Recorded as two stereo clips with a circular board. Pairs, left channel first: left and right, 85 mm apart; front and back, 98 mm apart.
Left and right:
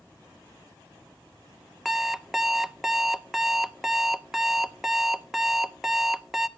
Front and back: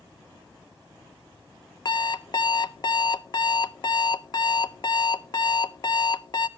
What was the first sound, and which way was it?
An alarm clock, 5° right.